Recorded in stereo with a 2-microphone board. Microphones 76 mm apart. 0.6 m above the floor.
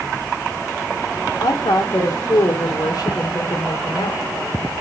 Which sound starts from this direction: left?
A woman speaking, at 1.4 s.